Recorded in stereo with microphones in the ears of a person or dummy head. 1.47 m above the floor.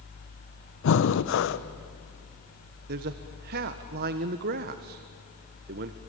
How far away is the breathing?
About 1.0 m.